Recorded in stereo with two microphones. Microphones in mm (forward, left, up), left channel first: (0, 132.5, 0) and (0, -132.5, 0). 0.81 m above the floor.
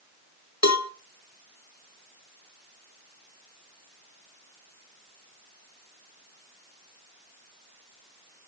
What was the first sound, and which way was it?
A cowbell, 80° left.